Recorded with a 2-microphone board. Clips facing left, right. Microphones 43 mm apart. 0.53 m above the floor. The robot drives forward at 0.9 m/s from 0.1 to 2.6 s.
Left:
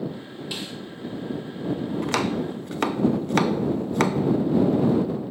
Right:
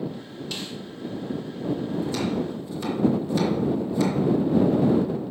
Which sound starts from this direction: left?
Chopping, at 2.0 s.